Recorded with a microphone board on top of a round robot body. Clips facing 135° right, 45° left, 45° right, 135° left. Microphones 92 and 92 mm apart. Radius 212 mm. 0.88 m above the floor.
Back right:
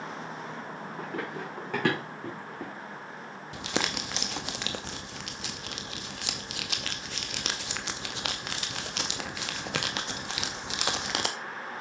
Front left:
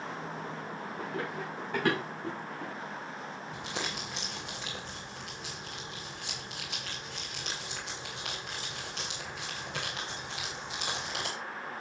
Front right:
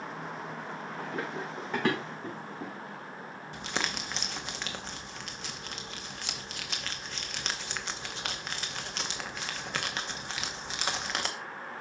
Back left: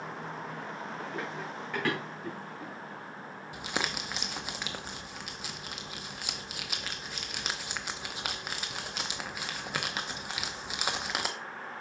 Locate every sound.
1.0 s running footsteps: 110° right, 5 m; by 2.7 s 115° right, 3.5 m
3.5 s crumpling: 145° right, 0.7 m